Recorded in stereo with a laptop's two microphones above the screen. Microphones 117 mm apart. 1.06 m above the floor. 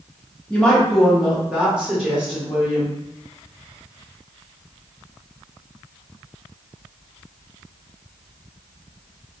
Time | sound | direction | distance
0.5 | a woman speaking | 10° left (ahead or behind) | 0.7 m